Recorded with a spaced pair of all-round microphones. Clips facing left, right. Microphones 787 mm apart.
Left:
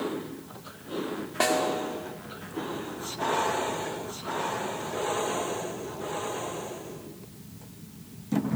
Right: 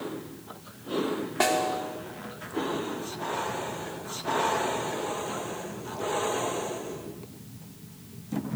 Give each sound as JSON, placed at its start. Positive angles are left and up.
{"t": 1.4, "sound": "a snare drum", "side_deg": 5, "distance_m": 2.0}